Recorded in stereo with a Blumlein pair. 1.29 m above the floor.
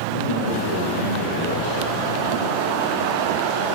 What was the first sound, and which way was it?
A man speaking, 55° left.